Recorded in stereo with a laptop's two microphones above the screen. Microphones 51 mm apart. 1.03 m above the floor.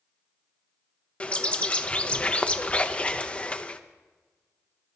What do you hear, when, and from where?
1.2 s a bird: 25° left (ahead or behind), 0.5 m